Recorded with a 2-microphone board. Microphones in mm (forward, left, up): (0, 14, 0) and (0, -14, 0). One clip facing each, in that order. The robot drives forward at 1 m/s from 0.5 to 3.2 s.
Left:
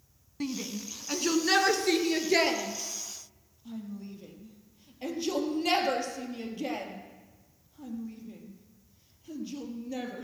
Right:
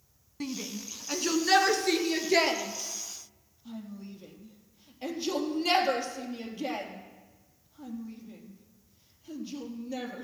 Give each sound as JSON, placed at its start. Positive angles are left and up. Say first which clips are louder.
{"t": 0.4, "sound": "a shout", "louder": "left 2 dB", "side_deg": 0, "distance_m": 1.0}